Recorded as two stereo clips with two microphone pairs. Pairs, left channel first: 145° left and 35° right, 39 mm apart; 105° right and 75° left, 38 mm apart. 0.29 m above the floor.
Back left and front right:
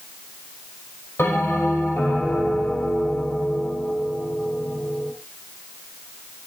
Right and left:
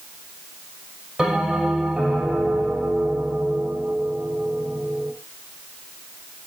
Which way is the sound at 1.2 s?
145° left.